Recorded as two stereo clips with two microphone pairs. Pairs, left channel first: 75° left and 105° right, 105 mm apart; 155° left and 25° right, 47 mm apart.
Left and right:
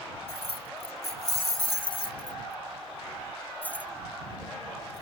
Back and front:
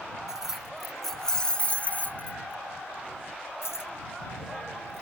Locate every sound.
0.3 s keys jangling: 55° left; by 5.0 s 160° left